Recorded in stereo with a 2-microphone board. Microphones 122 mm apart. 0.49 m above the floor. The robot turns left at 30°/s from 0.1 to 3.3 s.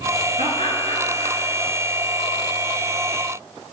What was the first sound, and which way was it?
Laughter, 75° right (ahead or behind).